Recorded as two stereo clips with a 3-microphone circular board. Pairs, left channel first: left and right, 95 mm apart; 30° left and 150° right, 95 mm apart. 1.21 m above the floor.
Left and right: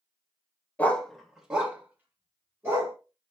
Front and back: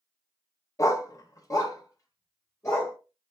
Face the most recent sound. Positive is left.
turn(degrees=-30)